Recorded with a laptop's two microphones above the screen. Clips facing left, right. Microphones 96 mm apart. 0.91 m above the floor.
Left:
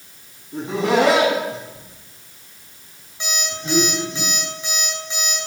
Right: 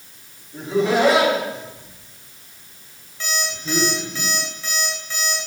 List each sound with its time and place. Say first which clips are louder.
0.5 s laughter: even; 70° left (ahead or behind), 6 m; by 4.2 s 55° left (ahead or behind), 4.5 m
3.2 s an alarm clock: right 1 dB; 15° left (ahead or behind), 3 m